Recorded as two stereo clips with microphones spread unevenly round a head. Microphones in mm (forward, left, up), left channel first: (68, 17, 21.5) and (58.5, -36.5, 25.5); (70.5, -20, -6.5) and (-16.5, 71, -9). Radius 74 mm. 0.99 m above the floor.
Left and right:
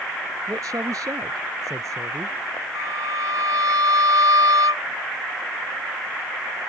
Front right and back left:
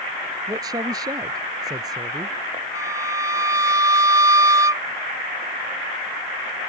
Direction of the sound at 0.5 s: 160° right.